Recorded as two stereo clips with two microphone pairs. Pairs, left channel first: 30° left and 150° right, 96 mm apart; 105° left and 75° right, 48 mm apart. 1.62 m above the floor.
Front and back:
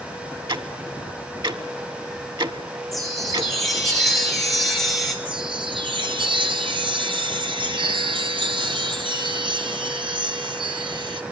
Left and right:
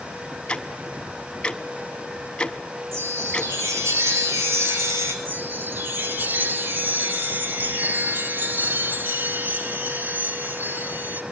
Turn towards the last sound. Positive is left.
turn(degrees=-120)